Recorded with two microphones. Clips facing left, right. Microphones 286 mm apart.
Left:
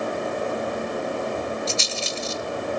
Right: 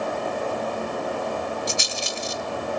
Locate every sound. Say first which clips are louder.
1.7 s a rattle: left 1 dB; 15° right (ahead or behind), 0.9 m